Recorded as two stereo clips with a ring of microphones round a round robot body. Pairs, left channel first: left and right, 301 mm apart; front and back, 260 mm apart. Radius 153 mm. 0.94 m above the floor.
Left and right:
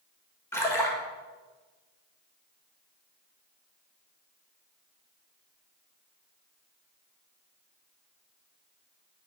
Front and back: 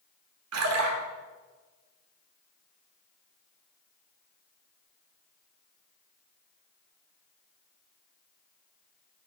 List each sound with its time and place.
0.5 s a splash: 170° left, 1.3 m